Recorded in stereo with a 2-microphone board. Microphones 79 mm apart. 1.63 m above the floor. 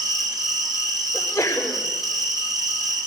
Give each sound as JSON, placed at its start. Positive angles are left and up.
{"t": 0.0, "sound": "an insect", "side_deg": -50, "distance_m": 3.0}
{"t": 1.1, "sound": "a sneeze", "side_deg": 30, "distance_m": 5.5}